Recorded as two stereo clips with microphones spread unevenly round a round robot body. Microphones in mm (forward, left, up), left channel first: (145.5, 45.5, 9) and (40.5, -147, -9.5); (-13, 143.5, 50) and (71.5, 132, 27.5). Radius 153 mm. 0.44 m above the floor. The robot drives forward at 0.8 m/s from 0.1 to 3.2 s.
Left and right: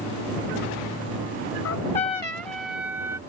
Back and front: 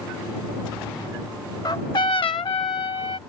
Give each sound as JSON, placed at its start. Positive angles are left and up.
{"t": 1.6, "sound": "a trumpet", "azimuth_deg": 115}